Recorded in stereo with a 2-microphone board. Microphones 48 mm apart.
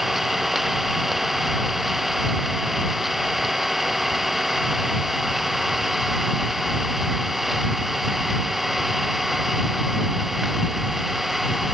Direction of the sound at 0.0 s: 5° right (ahead or behind).